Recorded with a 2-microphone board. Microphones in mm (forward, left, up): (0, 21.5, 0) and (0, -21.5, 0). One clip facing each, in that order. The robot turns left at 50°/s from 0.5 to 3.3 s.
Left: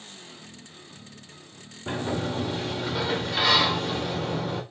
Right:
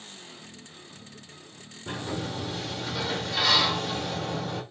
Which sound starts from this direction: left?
A sliding door, at 1.9 s.